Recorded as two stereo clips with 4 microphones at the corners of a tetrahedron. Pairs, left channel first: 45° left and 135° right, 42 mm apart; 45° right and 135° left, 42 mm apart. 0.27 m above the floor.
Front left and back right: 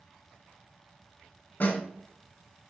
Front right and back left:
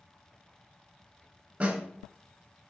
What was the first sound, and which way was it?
A snare drum, 85° left.